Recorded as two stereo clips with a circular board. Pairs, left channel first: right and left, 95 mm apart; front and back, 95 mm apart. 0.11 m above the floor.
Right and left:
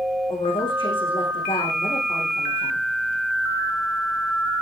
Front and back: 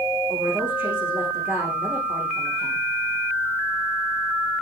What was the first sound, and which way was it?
A woman speaking, 105° right.